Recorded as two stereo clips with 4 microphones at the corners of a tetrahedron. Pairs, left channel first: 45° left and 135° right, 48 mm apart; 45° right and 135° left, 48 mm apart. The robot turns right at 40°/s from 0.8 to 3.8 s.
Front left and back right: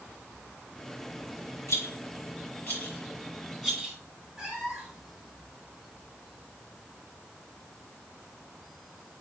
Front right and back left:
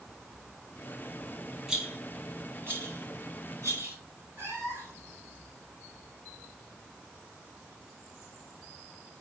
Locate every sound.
1.7 s a rattle: 50° left, 3.5 m; by 4.0 s 135° left, 3.5 m
4.4 s a cat meowing: 135° left, 2 m